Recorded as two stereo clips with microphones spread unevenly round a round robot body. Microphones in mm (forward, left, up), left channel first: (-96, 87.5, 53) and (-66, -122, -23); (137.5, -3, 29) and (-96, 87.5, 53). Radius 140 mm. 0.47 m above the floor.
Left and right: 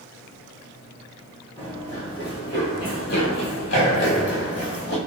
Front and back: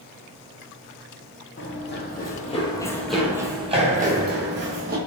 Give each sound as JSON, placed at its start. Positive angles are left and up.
{"t": 1.6, "sound": "running footsteps", "azimuth_deg": 20, "distance_m": 1.5}